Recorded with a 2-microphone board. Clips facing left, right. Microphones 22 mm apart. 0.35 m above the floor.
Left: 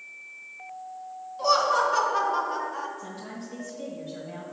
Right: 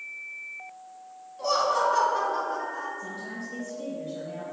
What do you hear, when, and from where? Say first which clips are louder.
1.4 s laughter: left 2 dB; 15° left (ahead or behind), 1.8 m; by 2.9 s 30° left (ahead or behind), 1.2 m
3.0 s a woman speaking: right 2 dB; 10° left (ahead or behind), 1.9 m